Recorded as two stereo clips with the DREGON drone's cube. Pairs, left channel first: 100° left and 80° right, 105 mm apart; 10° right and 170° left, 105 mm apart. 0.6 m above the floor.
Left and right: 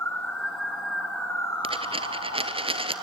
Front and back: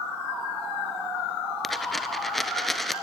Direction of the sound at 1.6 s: 100° right.